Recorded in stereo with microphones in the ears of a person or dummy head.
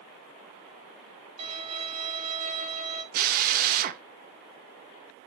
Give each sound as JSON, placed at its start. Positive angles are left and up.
{"t": 1.4, "sound": "a violin", "side_deg": -35, "distance_m": 2.5}
{"t": 3.1, "sound": "a drill", "side_deg": -50, "distance_m": 1.6}